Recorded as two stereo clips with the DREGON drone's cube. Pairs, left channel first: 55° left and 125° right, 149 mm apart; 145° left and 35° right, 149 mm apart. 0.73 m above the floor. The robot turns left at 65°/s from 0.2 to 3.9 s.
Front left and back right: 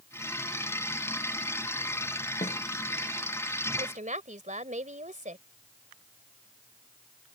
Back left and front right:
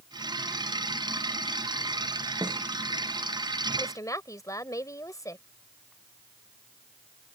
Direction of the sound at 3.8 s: 140° right.